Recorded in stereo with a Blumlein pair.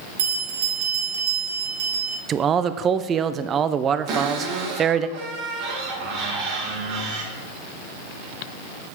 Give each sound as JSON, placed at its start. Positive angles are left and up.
{"t": 0.2, "sound": "a bell", "azimuth_deg": -60, "distance_m": 1.7}
{"t": 2.3, "sound": "a man speaking", "azimuth_deg": -25, "distance_m": 0.5}
{"t": 4.1, "sound": "a cupboard door", "azimuth_deg": -40, "distance_m": 2.0}